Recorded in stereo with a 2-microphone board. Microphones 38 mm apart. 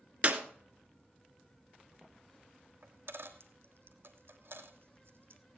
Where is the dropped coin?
70° right (ahead or behind), 1.3 m.